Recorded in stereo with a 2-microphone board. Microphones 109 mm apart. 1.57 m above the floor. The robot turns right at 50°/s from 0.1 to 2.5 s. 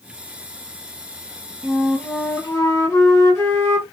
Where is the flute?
5° right, 1.9 m; by 3.8 s 35° left, 1.9 m.